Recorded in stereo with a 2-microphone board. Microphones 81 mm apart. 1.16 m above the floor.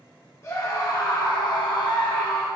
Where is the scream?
35° left (ahead or behind), 1.1 m; by 2.5 s 50° left (ahead or behind), 0.7 m.